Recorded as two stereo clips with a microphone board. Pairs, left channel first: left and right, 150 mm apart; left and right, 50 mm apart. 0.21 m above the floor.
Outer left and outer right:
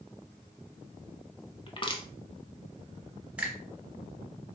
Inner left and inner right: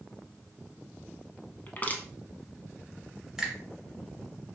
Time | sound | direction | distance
1.7 | crushing | 35° left (ahead or behind) | 0.6 m
3.4 | a finger snap | 10° right (ahead or behind) | 0.9 m